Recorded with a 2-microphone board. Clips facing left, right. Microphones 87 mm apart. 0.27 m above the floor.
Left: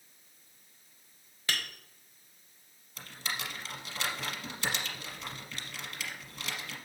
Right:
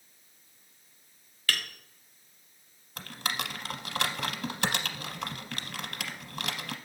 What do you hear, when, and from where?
1.5 s tapping: 20° left (ahead or behind), 1.1 m
3.0 s typing on a keyboard: 70° right (ahead or behind), 0.7 m